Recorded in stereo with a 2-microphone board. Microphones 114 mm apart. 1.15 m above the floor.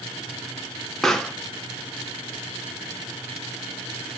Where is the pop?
5° left (ahead or behind), 0.5 m.